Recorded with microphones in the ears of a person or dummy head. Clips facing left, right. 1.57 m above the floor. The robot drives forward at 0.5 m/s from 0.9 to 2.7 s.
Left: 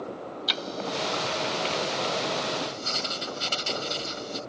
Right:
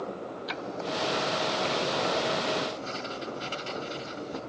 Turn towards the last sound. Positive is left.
turn(degrees=55)  # may be behind; listen again after turning